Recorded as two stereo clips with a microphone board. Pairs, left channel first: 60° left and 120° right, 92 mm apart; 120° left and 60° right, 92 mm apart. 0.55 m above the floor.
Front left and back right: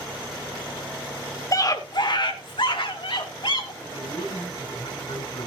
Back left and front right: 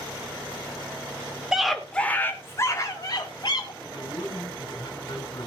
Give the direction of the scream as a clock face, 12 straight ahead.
11 o'clock.